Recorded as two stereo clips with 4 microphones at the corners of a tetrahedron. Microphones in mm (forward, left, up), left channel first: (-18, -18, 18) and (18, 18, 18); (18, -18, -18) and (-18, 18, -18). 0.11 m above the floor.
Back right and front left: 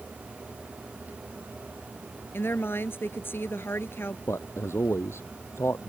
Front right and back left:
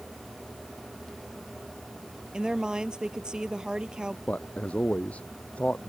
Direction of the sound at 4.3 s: 110° right.